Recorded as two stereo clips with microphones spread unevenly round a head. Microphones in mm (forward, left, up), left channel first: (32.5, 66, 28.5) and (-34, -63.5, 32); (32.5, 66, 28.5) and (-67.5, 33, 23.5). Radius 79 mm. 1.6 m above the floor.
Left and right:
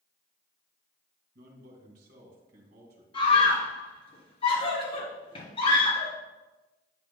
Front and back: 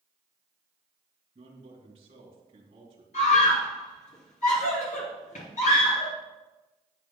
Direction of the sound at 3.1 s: 10° left.